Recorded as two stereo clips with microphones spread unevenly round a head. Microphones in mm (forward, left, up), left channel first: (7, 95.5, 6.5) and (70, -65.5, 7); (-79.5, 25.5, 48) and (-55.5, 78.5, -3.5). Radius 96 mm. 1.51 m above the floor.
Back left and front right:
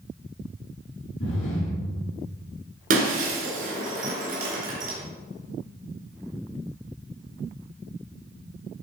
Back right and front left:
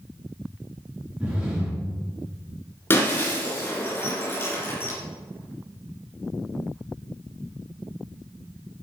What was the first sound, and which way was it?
Breathing, 145° left.